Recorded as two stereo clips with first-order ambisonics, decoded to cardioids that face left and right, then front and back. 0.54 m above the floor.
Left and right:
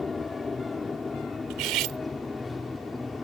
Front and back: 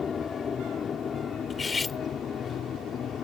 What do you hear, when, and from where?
0.0 s an aircraft: 30° left; by 3.2 s 15° left
1.5 s cutlery clinking: 70° right